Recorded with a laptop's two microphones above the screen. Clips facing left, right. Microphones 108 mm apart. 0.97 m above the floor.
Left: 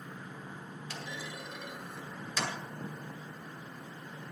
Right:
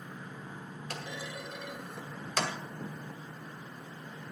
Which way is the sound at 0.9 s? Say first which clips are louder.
Right 2 dB; 60° right (ahead or behind).